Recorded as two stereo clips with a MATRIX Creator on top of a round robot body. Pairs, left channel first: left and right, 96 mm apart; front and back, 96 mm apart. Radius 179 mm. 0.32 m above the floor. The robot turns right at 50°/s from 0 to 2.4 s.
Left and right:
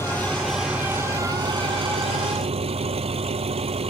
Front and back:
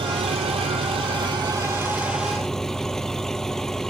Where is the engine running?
155° left; by 3.9 s 85° right.